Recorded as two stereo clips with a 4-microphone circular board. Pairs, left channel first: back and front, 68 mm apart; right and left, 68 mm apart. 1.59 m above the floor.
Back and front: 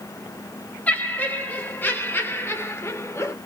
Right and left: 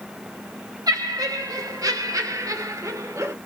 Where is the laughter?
110° left, 3 m; by 3.4 s 135° left, 1.6 m.